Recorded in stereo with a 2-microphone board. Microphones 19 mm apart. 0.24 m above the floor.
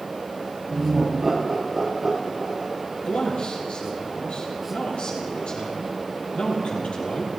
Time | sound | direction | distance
0.7 | laughter | 10° right (ahead or behind) | 5.5 m
3.0 | a man speaking | 70° left (ahead or behind) | 8.5 m